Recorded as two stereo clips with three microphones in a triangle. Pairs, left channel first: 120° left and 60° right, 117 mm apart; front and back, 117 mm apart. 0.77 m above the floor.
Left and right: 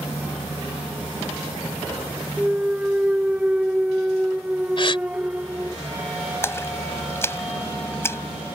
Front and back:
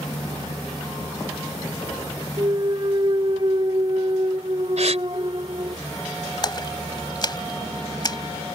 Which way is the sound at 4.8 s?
160° left.